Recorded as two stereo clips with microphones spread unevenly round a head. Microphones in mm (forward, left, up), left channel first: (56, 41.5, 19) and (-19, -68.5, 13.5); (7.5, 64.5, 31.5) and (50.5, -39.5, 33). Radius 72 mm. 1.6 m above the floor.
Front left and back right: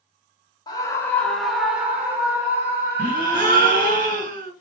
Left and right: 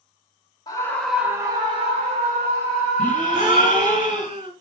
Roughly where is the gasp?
Behind right.